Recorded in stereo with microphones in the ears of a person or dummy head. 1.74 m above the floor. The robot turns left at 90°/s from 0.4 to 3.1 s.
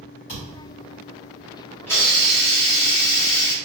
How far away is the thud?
About 1.5 m.